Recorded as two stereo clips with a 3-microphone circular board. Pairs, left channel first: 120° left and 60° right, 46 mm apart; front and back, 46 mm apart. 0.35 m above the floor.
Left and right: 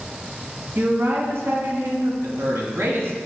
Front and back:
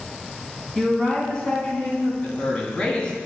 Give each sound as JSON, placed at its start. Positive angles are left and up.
{"t": 0.8, "sound": "a woman speaking", "azimuth_deg": -80, "distance_m": 3.5}
{"t": 2.2, "sound": "a man speaking", "azimuth_deg": -60, "distance_m": 3.5}